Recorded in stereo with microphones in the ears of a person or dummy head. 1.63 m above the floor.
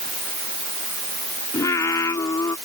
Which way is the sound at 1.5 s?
20° left (ahead or behind).